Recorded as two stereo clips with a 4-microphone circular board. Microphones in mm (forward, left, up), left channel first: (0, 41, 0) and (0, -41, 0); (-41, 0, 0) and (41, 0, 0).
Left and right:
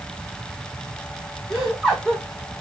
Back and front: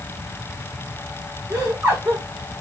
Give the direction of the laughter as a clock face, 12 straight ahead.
12 o'clock.